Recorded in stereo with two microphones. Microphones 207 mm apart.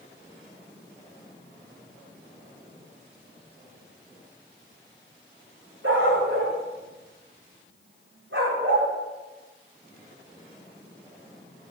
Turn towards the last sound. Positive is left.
turn(degrees=-75)  # may be behind; listen again after turning